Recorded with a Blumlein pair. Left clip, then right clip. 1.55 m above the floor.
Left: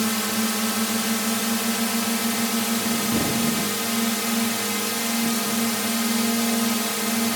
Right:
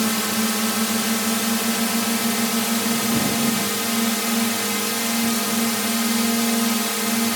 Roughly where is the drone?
Ahead.